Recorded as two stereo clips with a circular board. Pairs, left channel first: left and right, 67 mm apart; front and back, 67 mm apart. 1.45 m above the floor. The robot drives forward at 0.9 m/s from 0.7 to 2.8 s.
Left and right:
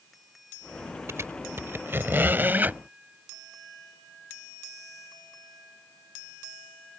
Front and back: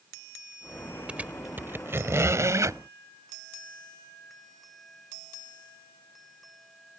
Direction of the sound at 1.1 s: 115° right.